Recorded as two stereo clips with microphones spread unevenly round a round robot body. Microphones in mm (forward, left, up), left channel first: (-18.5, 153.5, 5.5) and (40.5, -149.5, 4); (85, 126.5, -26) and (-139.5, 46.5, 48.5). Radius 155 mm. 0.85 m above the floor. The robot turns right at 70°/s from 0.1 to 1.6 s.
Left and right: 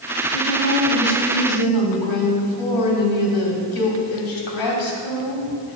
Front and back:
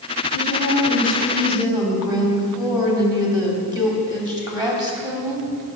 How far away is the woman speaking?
About 2.5 m.